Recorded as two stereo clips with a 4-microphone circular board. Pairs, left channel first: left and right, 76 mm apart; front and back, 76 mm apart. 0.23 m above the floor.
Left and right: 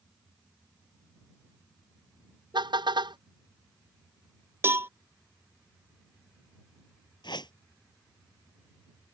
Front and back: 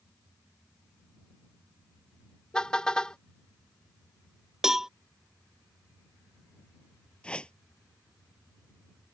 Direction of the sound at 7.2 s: 75° left.